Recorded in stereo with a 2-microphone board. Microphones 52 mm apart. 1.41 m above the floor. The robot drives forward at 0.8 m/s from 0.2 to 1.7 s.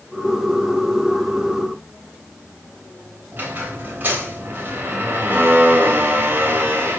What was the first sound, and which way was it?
A squeak, 40° right (ahead or behind).